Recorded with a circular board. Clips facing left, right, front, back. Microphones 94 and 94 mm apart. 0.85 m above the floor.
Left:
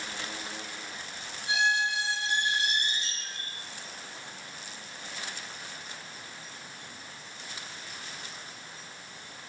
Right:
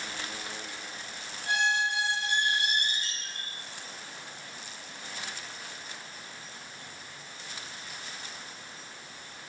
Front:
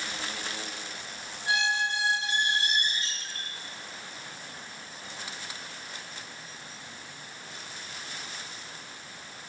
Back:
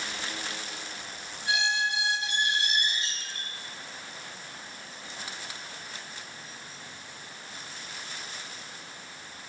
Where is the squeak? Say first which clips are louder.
Even, front 1 dB; 55° right, 4.5 m.